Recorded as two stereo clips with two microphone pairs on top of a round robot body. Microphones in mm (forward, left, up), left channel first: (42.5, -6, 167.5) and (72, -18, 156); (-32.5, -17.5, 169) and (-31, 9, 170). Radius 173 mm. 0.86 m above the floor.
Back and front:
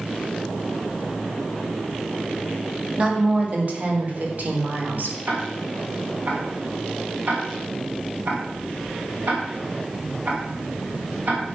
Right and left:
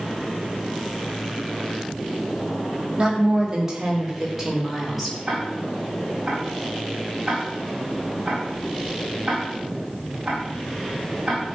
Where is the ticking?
10° left, 5 m.